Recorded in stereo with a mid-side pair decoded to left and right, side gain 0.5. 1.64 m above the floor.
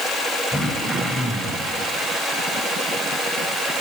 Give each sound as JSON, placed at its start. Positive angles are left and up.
{"t": 0.5, "sound": "throat clearing", "azimuth_deg": 0, "distance_m": 5.5}